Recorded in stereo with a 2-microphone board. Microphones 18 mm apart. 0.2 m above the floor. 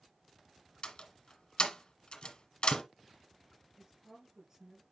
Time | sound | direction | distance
0.8 | a door slam | 55° left (ahead or behind) | 1.6 m
3.8 | a woman speaking | 35° right (ahead or behind) | 3.5 m